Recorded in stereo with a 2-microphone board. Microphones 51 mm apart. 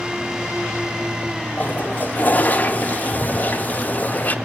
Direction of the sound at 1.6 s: 30° left (ahead or behind).